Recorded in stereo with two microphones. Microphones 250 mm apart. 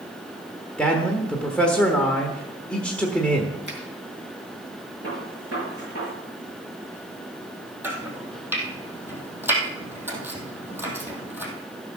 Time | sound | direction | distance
0.8 | a man speaking | 5° left (ahead or behind) | 1.1 m
3.7 | a finger snap | 45° right (ahead or behind) | 3.5 m
5.0 | a gunshot | 65° right (ahead or behind) | 6 m
7.8 | chopping | 10° right (ahead or behind) | 2.5 m